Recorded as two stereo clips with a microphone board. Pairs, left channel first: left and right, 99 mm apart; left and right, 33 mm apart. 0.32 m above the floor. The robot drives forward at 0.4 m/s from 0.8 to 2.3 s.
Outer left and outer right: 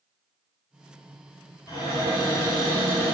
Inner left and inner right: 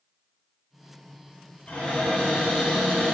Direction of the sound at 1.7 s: 40° left (ahead or behind).